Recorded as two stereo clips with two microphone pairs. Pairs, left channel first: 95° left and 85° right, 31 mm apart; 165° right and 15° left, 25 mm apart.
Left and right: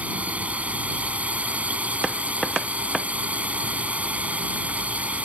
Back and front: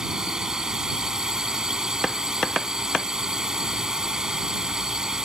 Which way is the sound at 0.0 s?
50° right.